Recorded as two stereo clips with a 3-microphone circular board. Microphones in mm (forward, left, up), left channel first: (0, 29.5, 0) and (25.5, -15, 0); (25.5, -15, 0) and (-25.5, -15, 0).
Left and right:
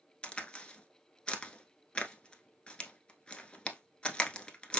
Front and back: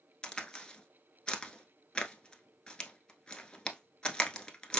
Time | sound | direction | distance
0.2 | a crack | 60° left | 0.7 m